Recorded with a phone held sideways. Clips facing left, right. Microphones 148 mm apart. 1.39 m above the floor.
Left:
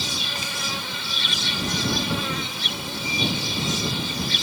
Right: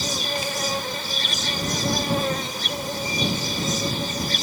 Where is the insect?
45° right (ahead or behind).